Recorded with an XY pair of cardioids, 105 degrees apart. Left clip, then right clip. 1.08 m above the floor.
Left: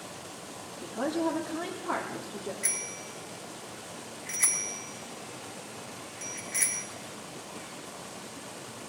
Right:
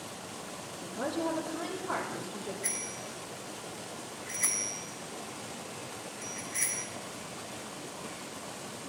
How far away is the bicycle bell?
About 3.5 m.